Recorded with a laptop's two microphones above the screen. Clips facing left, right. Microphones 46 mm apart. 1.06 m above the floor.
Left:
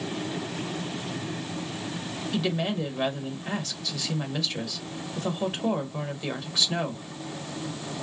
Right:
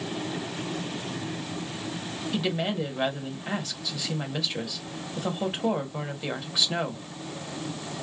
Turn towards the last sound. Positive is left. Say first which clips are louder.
# even
turn(degrees=-10)  # may be behind; listen again after turning